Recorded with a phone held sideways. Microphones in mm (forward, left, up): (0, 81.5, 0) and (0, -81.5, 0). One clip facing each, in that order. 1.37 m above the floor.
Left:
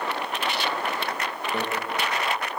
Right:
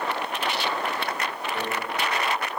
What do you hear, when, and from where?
1.5 s a microwave: 65° left (ahead or behind), 0.9 m